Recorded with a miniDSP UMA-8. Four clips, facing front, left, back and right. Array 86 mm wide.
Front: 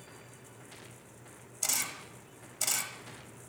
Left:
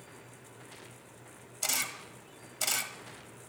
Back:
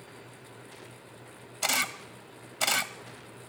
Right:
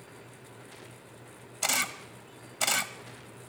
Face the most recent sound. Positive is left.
turn(degrees=-145)